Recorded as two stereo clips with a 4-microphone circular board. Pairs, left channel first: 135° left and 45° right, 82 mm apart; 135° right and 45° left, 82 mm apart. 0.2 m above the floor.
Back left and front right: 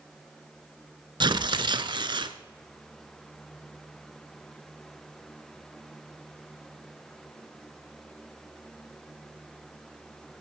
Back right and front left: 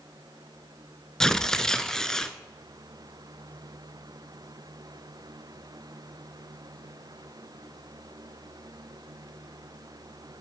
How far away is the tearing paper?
About 0.7 m.